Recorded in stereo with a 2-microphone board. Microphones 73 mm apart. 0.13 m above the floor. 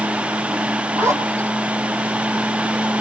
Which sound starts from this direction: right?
A zipper, at 0.9 s.